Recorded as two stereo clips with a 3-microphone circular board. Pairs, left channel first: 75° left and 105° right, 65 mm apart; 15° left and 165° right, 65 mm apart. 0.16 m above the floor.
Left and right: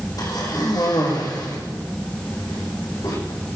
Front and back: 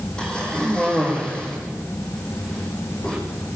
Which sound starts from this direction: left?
A cough, at 0.2 s.